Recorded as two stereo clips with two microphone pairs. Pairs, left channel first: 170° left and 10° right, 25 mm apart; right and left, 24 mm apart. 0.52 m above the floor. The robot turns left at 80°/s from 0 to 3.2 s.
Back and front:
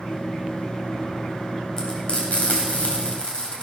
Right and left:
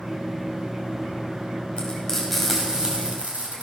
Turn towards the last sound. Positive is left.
turn(degrees=120)